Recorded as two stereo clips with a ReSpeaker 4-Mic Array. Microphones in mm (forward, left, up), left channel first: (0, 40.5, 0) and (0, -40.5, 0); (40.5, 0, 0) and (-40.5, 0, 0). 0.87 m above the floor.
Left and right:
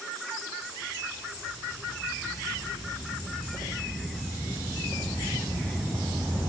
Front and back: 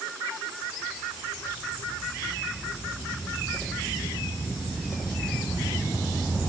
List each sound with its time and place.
Only background noise.